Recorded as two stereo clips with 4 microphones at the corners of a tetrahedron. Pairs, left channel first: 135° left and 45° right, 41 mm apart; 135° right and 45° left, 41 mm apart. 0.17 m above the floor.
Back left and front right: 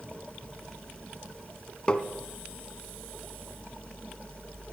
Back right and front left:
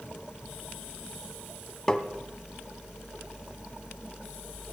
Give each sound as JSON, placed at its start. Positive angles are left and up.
{"t": 1.9, "sound": "tapping", "azimuth_deg": 175, "distance_m": 1.0}